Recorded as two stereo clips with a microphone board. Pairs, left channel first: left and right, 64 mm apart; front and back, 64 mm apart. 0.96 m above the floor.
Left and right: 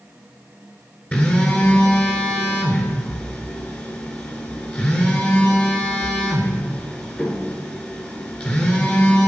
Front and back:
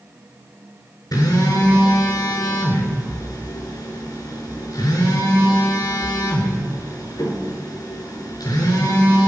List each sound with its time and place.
1.1 s a phone buzzing: 25° left, 4 m